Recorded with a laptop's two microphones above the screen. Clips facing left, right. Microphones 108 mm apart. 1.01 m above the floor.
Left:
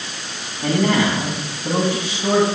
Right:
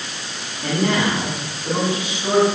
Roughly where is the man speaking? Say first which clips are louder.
Left 2 dB; left.